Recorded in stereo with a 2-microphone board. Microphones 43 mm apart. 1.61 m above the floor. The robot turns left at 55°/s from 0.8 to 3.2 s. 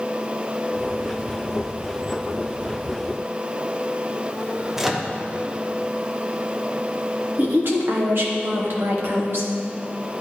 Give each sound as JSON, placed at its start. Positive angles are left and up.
{"t": 4.8, "sound": "a microwave", "side_deg": -10, "distance_m": 0.5}
{"t": 7.4, "sound": "a woman speaking", "side_deg": -60, "distance_m": 1.3}